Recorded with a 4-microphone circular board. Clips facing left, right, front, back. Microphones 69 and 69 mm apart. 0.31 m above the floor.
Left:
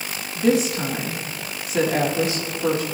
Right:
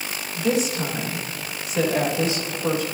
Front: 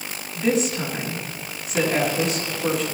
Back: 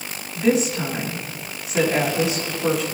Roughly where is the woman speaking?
Left.